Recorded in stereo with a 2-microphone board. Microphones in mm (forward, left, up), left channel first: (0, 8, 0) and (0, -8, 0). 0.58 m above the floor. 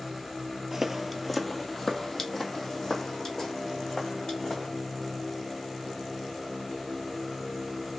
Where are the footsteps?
15° right (ahead or behind), 0.6 m; by 4.7 s 40° left (ahead or behind), 2.5 m.